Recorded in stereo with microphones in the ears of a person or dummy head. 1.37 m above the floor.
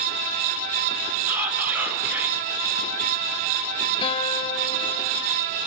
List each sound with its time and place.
1.3 s whispering: 15° right (ahead or behind), 5.5 m
4.0 s a guitar: 30° left (ahead or behind), 2.5 m